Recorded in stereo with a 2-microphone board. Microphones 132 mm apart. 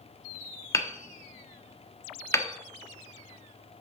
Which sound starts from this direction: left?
Hammering, at 0.7 s.